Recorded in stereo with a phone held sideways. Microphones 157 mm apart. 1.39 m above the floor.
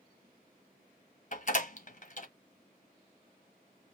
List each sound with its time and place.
1.3 s a door slam: 55° left (ahead or behind), 1.0 m